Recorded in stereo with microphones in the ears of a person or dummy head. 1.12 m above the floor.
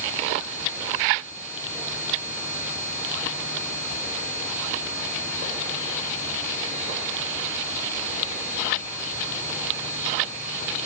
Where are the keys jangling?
No keys jangling in this recording.